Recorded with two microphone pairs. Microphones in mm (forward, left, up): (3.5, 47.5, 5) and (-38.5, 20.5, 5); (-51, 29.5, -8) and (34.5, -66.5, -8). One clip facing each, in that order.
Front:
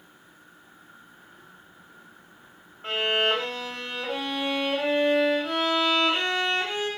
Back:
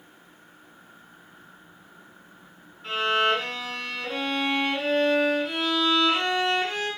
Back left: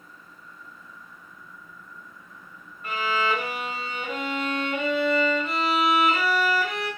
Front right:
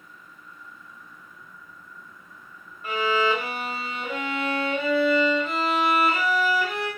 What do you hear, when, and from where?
2.8 s a violin: 35° left, 1.8 m